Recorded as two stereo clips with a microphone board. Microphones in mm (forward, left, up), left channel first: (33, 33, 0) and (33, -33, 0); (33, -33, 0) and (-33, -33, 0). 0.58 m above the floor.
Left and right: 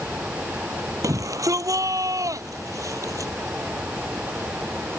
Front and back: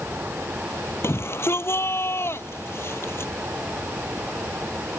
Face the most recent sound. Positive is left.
turn(degrees=-55)